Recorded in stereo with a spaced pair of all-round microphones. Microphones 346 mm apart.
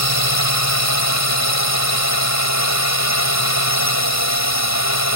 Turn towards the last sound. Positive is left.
turn(degrees=45)  # may be behind; listen again after turning